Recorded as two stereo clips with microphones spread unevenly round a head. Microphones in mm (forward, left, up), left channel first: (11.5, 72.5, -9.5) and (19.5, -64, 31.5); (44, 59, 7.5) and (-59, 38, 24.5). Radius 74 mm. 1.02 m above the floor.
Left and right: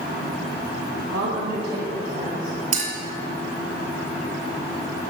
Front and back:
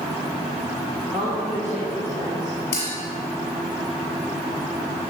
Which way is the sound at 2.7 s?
60° right.